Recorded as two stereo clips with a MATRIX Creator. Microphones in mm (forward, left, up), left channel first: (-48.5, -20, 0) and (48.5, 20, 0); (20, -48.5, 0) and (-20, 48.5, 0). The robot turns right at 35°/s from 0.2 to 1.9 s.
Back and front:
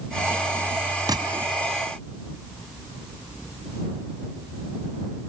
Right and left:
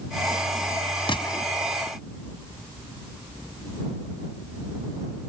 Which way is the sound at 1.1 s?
30° right.